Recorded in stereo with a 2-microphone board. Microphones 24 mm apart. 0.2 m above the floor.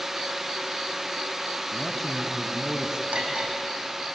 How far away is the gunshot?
No gunshot in this recording.